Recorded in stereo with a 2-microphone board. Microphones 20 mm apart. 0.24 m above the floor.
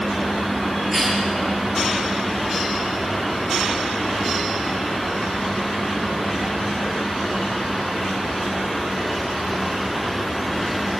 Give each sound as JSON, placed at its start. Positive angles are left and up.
{"t": 0.9, "sound": "a cough", "side_deg": 0, "distance_m": 4.5}